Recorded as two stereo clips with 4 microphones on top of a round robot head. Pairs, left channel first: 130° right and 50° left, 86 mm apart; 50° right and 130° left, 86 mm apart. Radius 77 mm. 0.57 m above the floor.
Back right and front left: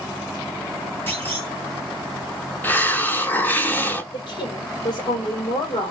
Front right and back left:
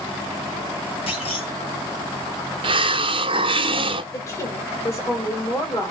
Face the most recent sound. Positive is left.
turn(degrees=-105)